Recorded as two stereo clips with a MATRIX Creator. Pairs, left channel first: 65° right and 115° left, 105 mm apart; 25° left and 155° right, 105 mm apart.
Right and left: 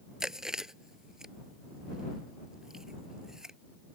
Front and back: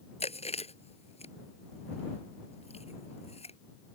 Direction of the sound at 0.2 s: 30° left.